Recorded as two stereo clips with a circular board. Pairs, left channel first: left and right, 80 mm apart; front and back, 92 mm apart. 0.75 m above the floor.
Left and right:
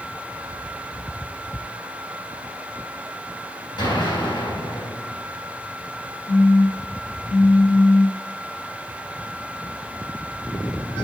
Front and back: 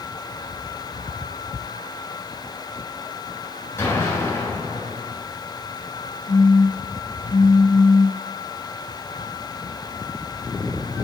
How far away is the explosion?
About 4 m.